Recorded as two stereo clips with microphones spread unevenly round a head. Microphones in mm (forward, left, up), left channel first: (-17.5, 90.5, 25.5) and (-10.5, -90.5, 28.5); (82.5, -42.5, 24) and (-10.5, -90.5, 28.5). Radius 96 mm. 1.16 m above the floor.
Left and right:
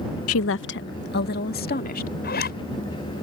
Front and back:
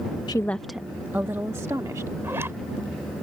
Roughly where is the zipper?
Behind left.